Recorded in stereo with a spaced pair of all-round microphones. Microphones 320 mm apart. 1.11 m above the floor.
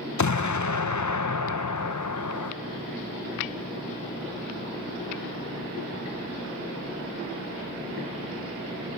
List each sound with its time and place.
0.2 s an explosion: 65° left (ahead or behind), 0.6 m